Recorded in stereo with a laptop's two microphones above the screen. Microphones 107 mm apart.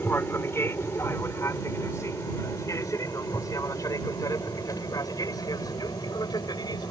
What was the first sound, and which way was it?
An aircraft, 20° left (ahead or behind).